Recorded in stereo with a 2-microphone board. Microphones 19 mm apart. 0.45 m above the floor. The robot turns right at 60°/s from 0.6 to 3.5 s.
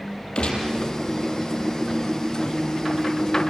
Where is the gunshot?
55° left (ahead or behind), 4.5 m; by 0.7 s 50° left (ahead or behind), 4.5 m.